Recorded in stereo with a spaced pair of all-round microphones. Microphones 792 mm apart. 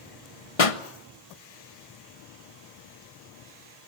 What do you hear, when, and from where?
0.6 s a pop: 45° left (ahead or behind), 1.1 m